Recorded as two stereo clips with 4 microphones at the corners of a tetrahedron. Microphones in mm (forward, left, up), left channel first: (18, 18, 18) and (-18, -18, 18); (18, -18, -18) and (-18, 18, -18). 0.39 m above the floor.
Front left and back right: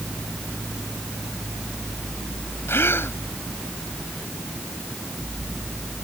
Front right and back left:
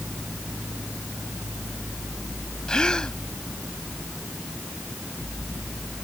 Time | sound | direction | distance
2.7 | a gasp | 20° left | ?